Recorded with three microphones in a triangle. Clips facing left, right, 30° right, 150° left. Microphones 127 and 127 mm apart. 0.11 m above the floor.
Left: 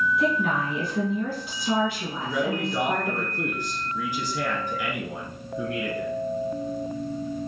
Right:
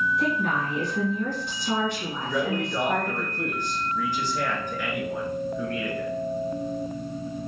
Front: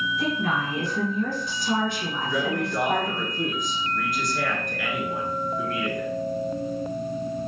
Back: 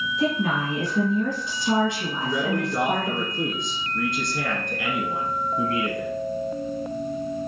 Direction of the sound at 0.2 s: 150° left.